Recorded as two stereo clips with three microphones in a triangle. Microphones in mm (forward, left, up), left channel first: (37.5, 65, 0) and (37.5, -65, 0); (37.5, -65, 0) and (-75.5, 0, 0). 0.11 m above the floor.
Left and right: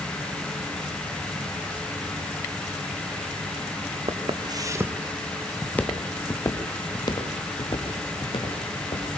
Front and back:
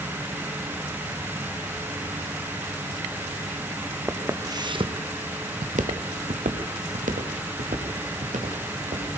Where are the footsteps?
135° right, 1.2 m; by 9.1 s 135° left, 3.5 m.